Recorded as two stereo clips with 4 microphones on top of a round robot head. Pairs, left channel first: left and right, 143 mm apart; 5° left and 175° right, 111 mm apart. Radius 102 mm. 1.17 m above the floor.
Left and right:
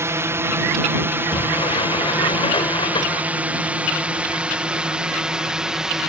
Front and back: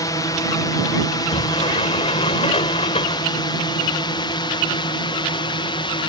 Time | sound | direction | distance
0.0 | a drone | 30° right | ?
1.1 | a sliding door | 35° left | ?